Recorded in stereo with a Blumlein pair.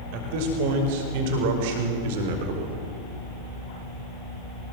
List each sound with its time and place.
0.1 s a man speaking: 45° right, 5.5 m; by 2.8 s 50° right, 3.5 m